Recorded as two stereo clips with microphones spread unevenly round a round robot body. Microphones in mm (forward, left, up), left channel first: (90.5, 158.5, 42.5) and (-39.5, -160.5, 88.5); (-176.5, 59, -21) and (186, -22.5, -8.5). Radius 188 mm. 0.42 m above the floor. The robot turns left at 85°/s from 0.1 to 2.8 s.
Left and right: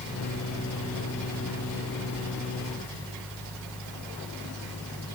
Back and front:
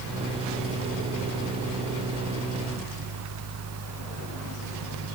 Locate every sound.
Only background noise.